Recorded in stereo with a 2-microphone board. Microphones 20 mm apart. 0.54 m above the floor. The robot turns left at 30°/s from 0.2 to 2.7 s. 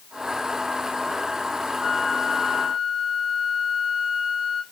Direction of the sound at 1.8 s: 40° right (ahead or behind).